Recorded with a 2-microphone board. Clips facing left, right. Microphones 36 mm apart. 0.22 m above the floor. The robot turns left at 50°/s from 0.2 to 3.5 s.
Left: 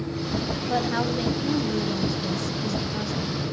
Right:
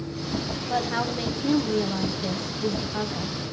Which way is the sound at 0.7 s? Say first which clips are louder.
Left 1 dB; 5° left (ahead or behind).